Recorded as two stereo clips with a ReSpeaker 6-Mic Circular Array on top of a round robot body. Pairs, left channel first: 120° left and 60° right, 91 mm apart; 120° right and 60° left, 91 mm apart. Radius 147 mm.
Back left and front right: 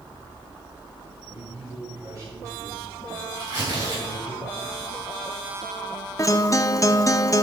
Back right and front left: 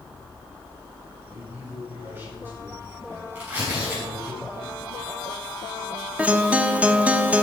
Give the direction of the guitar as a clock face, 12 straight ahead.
8 o'clock.